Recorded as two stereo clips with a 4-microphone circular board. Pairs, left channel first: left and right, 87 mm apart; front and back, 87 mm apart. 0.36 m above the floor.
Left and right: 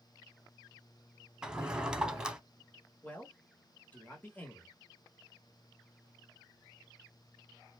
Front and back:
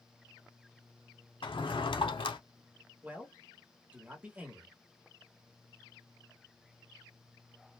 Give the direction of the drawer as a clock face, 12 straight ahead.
12 o'clock.